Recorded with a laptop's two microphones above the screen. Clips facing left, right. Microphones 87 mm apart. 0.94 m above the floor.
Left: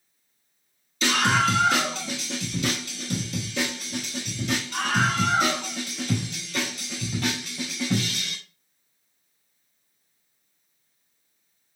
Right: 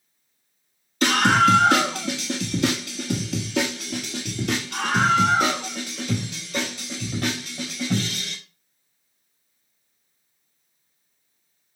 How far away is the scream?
About 1.8 m.